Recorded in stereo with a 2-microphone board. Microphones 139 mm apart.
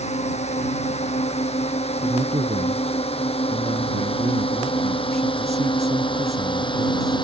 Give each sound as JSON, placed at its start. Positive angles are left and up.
{"t": 0.0, "sound": "a drone", "side_deg": 55}
{"t": 2.0, "sound": "a man speaking", "side_deg": -50}